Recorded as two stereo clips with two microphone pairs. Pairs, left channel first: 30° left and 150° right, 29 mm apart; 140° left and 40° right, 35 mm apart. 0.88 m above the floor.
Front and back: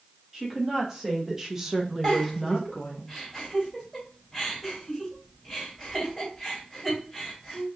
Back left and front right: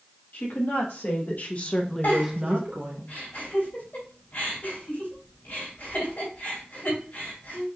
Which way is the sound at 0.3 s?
140° left.